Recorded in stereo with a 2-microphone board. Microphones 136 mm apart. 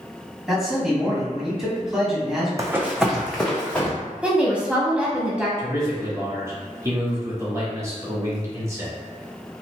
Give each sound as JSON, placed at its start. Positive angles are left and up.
{"t": 0.5, "sound": "a man speaking", "side_deg": -5, "distance_m": 1.3}
{"t": 2.6, "sound": "running footsteps", "side_deg": -25, "distance_m": 0.6}
{"t": 4.2, "sound": "a woman speaking", "side_deg": -10, "distance_m": 1.0}
{"t": 5.6, "sound": "a man speaking", "side_deg": -20, "distance_m": 1.2}